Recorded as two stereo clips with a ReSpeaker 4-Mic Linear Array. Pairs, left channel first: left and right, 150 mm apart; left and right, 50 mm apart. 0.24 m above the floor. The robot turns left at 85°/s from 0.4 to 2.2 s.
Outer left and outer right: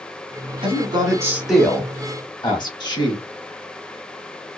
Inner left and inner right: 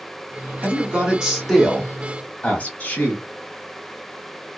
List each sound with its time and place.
0.6 s a man speaking: 105° right, 1.2 m; by 3.2 s 120° left, 1.2 m